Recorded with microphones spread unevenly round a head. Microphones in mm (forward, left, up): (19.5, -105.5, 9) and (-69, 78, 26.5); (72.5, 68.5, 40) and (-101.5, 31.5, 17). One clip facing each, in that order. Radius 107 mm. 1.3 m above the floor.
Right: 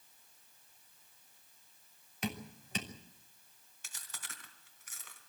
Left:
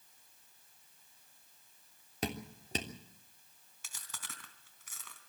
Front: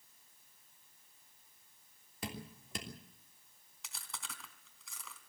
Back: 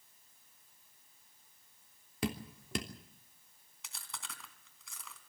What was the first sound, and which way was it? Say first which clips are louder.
Dripping: left 1 dB, back 8 dB; 170° left.